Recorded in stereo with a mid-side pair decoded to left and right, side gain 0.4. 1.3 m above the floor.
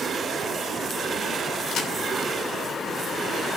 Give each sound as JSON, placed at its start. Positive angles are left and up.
{"t": 1.7, "sound": "a crack", "azimuth_deg": 70, "distance_m": 3.5}